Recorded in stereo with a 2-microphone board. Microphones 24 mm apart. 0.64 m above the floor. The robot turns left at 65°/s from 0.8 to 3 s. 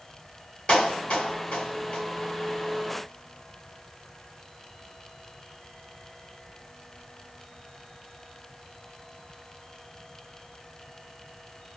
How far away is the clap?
About 2 m.